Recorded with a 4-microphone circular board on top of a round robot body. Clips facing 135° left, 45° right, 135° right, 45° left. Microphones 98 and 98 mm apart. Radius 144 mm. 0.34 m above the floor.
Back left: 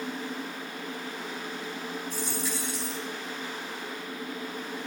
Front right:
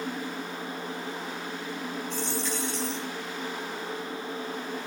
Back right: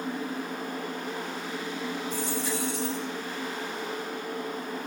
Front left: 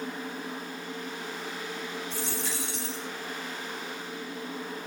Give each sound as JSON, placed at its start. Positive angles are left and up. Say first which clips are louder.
{"t": 2.1, "sound": "a dropped coin", "louder": "front right 2 dB, back right 4 dB", "azimuth_deg": 55, "distance_m": 4.5}